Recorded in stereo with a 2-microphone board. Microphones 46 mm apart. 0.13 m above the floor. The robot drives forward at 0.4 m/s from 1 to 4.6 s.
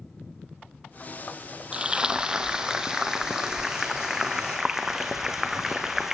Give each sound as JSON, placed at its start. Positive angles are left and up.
{"t": 1.7, "sound": "frying", "side_deg": -20, "distance_m": 1.0}